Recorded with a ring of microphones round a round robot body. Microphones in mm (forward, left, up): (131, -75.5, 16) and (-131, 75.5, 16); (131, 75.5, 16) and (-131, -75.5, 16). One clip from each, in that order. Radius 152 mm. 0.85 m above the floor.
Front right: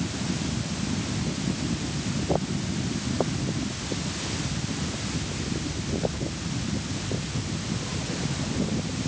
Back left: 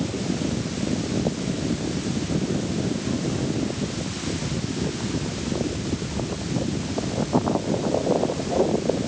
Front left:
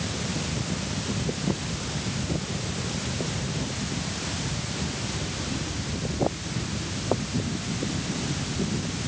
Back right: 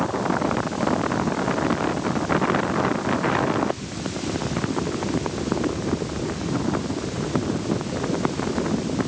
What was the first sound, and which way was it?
Only background noise.